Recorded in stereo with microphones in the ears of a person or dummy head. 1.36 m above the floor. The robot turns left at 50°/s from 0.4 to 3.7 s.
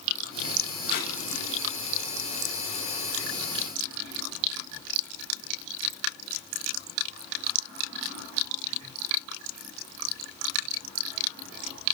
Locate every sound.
0.9 s tape being pulled: 50° left (ahead or behind), 2 m; by 1.1 s 60° left (ahead or behind), 2 m